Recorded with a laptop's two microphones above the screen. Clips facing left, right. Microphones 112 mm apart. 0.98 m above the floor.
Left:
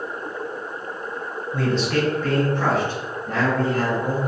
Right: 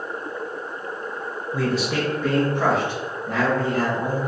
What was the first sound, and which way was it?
A man speaking, centre (ahead or behind).